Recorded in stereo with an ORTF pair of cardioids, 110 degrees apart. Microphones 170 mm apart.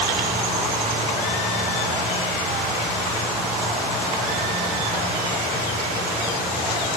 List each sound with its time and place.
Only background noise.